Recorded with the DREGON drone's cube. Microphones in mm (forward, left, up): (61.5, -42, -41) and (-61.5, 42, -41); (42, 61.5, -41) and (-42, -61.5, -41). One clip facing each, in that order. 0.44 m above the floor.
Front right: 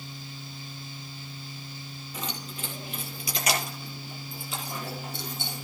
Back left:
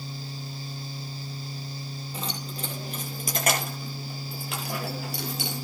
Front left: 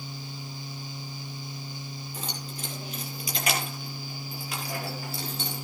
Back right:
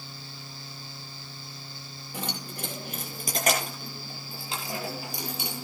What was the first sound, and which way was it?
Keys jangling, 155° right.